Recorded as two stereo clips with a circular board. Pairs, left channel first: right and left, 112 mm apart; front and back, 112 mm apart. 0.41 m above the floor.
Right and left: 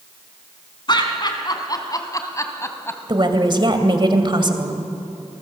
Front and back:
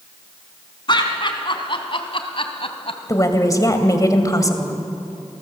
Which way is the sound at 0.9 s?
45° right.